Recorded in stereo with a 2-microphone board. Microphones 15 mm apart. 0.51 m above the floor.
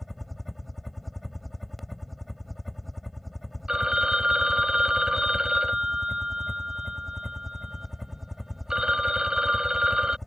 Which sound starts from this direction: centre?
A helicopter, at 0.0 s.